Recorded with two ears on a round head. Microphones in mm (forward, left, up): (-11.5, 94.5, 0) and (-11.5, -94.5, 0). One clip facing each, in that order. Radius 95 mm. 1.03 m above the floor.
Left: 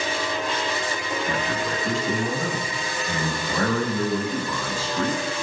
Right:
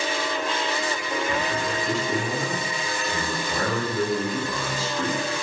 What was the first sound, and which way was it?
A man speaking, 65° left (ahead or behind).